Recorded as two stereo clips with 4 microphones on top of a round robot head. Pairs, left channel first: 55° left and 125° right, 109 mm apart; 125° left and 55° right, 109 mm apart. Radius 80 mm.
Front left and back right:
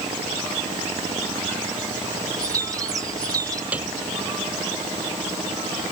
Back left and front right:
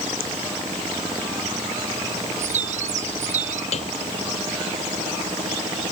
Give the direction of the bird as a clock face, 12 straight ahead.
2 o'clock.